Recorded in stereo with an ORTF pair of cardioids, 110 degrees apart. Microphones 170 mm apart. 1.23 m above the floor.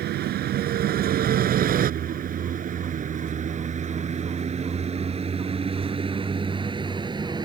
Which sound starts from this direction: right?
A vehicle, at 0.0 s.